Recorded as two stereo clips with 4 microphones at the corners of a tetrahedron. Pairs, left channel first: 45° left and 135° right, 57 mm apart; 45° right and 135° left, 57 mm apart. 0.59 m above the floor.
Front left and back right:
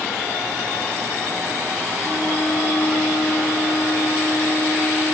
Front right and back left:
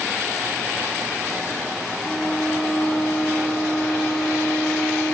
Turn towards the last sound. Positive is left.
turn(degrees=5)